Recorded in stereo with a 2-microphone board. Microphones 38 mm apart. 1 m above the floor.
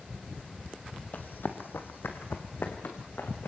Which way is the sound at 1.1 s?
55° left (ahead or behind).